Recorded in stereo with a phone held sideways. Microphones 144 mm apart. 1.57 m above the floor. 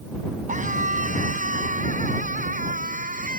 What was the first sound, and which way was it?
A scream, 60° right (ahead or behind).